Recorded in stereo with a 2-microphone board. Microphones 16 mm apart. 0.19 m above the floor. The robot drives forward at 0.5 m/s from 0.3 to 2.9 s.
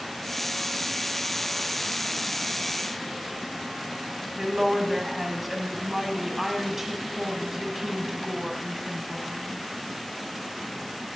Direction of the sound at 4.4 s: 20° right (ahead or behind).